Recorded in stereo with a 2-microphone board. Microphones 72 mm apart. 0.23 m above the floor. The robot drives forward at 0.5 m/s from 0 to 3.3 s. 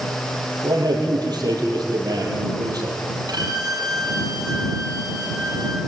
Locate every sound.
0.6 s a man speaking: 70° right (ahead or behind), 7.5 m; by 3.0 s 65° right (ahead or behind), 8 m
3.3 s a violin: 70° right (ahead or behind), 5.5 m